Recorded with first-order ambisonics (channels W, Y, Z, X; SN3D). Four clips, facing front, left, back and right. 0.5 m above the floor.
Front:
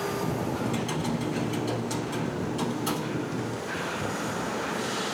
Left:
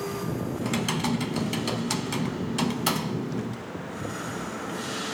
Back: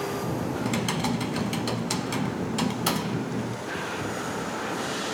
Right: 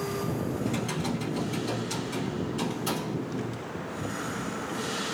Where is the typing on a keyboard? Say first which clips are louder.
Left 3 dB, back 2 dB; 130° left, 0.6 m.